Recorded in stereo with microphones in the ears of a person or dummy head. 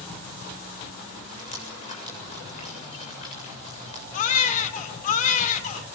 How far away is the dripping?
About 8 m.